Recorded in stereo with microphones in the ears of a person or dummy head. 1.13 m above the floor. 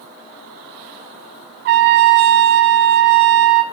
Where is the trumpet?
60° right (ahead or behind), 0.5 m.